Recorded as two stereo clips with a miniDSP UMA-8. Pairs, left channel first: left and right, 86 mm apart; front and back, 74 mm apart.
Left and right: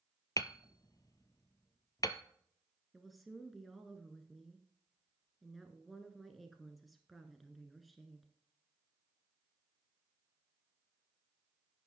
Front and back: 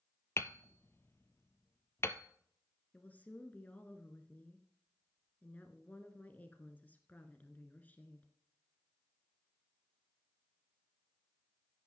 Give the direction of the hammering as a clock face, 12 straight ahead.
10 o'clock.